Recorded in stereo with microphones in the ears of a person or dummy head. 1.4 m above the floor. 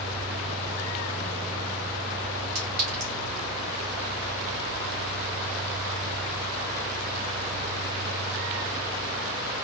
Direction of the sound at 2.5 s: 60° right (ahead or behind).